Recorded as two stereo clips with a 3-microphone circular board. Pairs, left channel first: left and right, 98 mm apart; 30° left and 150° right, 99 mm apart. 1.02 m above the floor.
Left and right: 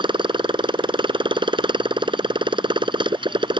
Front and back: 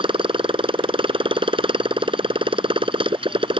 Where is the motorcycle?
125° right.